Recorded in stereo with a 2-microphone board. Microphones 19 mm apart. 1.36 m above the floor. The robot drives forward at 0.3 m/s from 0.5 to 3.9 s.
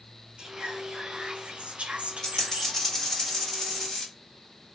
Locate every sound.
0.4 s whispering: 50° right (ahead or behind), 0.9 m; by 2.9 s 75° right (ahead or behind), 0.7 m
2.2 s a dropped coin: 30° left (ahead or behind), 1.3 m; by 4.1 s 25° left (ahead or behind), 1.6 m